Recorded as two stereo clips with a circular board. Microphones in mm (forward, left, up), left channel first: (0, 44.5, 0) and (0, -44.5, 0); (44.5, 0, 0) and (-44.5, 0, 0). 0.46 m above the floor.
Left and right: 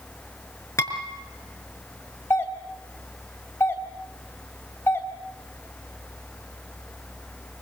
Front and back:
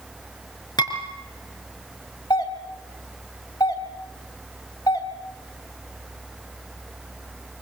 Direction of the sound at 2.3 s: 30° left.